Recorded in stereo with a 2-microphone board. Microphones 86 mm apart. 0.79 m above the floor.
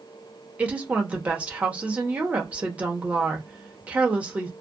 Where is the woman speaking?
15° right (ahead or behind), 0.8 m.